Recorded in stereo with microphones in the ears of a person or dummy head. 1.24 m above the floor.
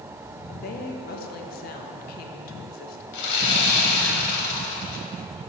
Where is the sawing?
60° left (ahead or behind), 1.3 m.